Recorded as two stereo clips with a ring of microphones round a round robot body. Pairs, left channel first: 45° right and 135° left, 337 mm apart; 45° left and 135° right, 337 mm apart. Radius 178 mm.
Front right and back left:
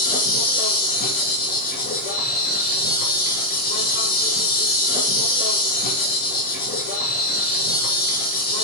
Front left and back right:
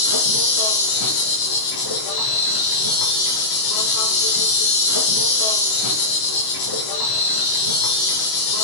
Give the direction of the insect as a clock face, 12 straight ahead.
11 o'clock.